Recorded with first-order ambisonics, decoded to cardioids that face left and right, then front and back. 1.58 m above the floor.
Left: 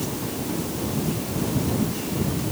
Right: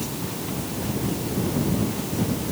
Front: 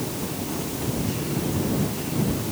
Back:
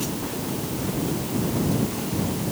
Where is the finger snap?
No finger snap in this recording.